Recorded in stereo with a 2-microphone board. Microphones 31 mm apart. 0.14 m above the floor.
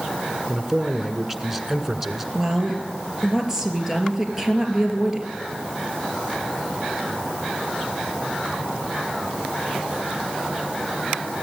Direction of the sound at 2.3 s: 15° right (ahead or behind).